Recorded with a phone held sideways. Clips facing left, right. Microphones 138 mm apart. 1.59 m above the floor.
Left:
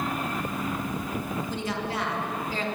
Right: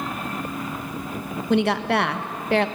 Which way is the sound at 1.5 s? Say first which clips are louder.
Right 10 dB; 70° right (ahead or behind).